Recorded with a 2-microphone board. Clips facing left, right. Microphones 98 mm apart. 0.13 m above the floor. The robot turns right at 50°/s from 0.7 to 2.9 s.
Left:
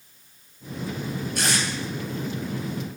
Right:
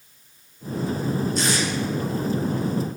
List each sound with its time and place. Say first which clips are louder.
1.4 s tape being pulled: right 3 dB; 55° left (ahead or behind), 1.7 m; by 1.6 s 65° left (ahead or behind), 1.7 m